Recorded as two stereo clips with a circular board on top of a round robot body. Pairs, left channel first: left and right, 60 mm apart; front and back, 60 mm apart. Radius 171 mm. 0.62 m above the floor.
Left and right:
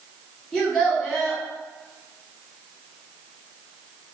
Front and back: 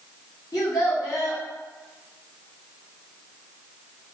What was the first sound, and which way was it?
A child speaking, 25° left.